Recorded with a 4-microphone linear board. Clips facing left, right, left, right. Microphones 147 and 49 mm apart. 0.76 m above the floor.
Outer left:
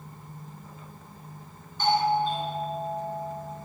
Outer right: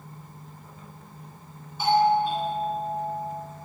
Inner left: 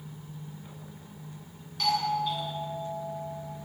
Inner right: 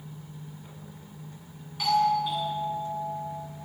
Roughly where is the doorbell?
Centre.